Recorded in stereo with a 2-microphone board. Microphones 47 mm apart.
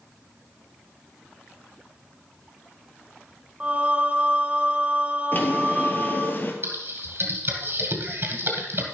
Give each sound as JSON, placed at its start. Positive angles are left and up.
{"t": 3.6, "sound": "singing", "side_deg": -25, "distance_m": 1.7}
{"t": 5.3, "sound": "a drawer", "side_deg": 45, "distance_m": 1.8}
{"t": 6.6, "sound": "typing on a keyboard", "side_deg": -55, "distance_m": 2.0}